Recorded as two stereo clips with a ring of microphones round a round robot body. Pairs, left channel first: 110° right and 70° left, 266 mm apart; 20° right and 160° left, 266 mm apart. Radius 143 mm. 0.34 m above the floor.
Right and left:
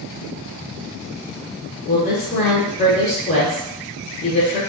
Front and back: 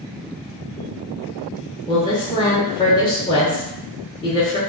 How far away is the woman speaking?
About 1.0 m.